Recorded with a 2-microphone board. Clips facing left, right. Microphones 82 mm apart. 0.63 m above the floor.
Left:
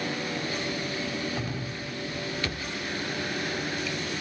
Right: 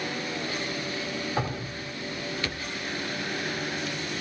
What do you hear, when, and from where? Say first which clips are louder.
1.4 s dripping: right 3 dB; 45° right (ahead or behind), 4 m